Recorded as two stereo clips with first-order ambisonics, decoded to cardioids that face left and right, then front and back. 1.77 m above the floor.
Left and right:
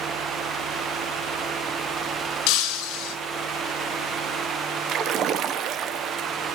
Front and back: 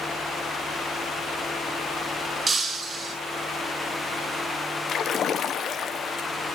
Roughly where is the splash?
Ahead right.